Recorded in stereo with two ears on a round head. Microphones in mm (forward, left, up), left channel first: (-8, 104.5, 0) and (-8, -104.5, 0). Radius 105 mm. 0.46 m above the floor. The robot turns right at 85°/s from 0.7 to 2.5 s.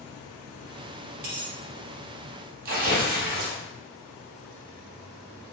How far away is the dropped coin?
About 1.5 m.